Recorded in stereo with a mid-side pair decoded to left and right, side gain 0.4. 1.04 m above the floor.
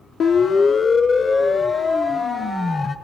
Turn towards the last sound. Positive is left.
turn(degrees=40)